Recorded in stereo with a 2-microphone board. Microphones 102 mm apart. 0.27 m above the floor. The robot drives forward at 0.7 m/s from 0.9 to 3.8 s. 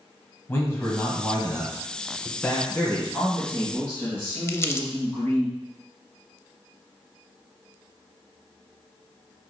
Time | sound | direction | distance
0.5 | a man speaking | 25° left (ahead or behind) | 1.6 m
3.1 | a man speaking | 20° left (ahead or behind) | 3 m
4.5 | crumpling | 30° left (ahead or behind) | 0.6 m